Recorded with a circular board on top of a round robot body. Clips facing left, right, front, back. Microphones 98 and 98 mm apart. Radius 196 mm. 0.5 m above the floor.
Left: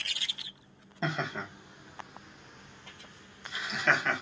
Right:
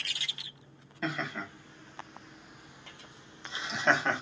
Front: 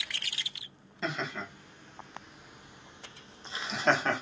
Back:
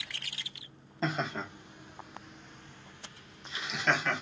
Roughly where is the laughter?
Behind left.